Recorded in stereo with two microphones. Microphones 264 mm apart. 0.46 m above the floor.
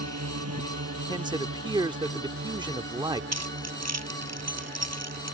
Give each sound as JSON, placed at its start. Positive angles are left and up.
{"t": 0.0, "sound": "a drone", "side_deg": -70}
{"t": 1.1, "sound": "a man speaking", "side_deg": -15}
{"t": 3.3, "sound": "keys jangling", "side_deg": -75}